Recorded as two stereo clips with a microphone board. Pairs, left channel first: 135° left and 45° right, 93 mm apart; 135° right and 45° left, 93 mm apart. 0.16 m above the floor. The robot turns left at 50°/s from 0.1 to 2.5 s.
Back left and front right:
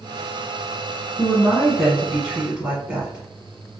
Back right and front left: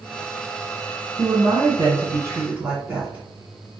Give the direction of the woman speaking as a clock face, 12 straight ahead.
9 o'clock.